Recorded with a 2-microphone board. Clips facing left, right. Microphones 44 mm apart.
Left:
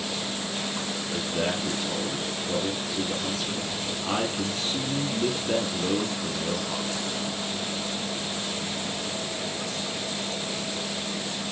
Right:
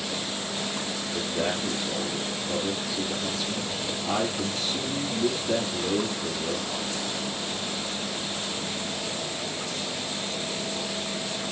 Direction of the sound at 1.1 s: 50° left (ahead or behind).